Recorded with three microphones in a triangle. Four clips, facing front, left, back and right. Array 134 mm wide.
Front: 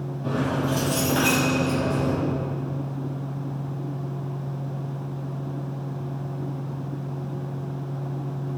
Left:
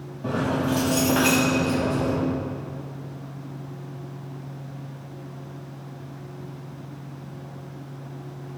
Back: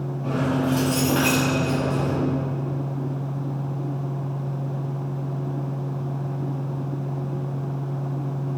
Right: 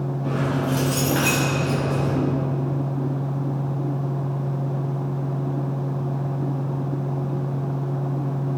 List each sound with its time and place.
0.2 s keys jangling: 100° left, 4.5 m; by 2.2 s 130° left, 5.5 m